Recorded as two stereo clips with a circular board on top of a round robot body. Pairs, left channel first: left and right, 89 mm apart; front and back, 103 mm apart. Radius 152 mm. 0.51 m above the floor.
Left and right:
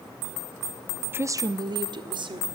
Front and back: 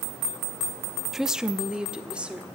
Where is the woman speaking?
95° right, 0.6 m; by 2.5 s 100° right, 1.6 m.